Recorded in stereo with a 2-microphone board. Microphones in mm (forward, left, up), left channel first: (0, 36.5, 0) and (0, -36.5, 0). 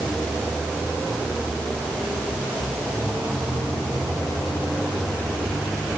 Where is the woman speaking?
I don't hear a woman speaking.